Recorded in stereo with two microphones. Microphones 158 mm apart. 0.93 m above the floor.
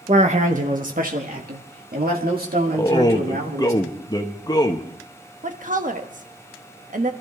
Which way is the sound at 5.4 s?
55° right (ahead or behind).